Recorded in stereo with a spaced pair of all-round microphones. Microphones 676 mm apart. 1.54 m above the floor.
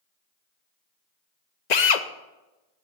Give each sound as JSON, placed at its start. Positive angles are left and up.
{"t": 1.7, "sound": "a drill", "side_deg": 70, "distance_m": 0.9}